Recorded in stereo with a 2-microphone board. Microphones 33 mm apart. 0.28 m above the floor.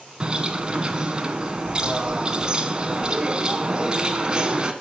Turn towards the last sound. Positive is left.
turn(degrees=-30)  # may be behind; listen again after turning